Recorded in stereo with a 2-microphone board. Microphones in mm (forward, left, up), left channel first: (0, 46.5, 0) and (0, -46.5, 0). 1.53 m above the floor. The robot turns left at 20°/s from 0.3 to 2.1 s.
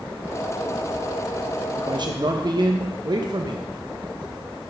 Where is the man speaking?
55° right (ahead or behind), 1.3 m; by 3.7 s 50° right (ahead or behind), 1.3 m.